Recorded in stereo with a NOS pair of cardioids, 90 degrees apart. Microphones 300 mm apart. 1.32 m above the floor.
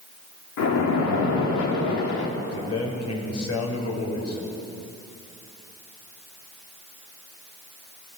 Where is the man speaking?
55° left, 7 m.